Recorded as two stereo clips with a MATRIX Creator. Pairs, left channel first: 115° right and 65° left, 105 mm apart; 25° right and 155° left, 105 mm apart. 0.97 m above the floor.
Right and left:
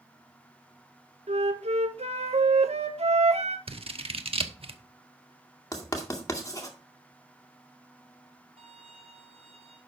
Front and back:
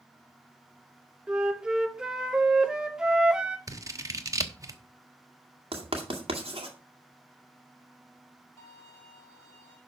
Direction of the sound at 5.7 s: 170° right.